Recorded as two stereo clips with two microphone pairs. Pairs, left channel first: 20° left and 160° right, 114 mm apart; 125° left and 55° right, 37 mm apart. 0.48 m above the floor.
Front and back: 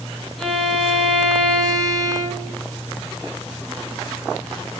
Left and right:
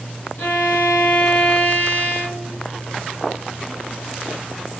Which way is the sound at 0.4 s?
105° left.